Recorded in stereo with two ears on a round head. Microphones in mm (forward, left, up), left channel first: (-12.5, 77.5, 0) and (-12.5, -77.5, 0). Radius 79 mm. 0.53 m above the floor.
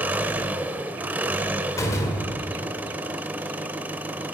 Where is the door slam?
20° left (ahead or behind), 1.5 m.